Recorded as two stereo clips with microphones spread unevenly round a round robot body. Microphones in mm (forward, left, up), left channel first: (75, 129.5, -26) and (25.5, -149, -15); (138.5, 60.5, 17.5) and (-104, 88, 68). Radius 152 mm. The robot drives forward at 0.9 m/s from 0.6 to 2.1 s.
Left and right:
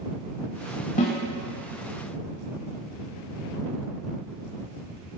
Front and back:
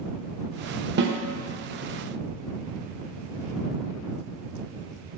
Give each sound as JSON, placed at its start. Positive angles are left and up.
{"t": 1.0, "sound": "a snare drum", "azimuth_deg": 135, "distance_m": 1.1}